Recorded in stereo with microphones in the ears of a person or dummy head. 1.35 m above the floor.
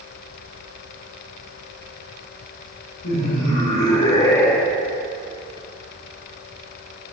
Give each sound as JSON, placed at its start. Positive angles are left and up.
{"t": 3.0, "sound": "laughter", "side_deg": 70, "distance_m": 1.9}